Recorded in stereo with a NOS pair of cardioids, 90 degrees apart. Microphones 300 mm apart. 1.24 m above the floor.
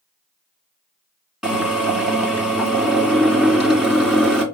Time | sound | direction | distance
1.4 | a drill | straight ahead | 4.5 m